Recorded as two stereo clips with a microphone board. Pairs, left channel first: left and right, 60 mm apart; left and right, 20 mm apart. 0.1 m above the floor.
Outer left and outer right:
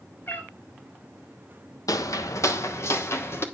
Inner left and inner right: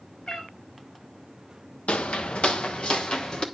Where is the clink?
I don't hear a clink.